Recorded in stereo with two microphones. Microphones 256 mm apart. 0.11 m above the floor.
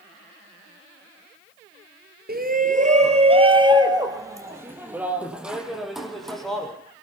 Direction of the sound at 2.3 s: 35° right (ahead or behind).